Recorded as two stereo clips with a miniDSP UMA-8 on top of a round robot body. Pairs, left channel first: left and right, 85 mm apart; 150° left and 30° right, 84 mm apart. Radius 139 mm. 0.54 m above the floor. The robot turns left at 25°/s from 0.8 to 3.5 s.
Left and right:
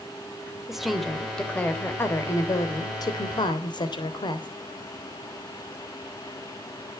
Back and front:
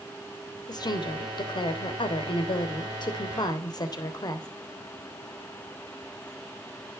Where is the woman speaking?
175° right, 3 m; by 4.5 s 115° left, 3 m.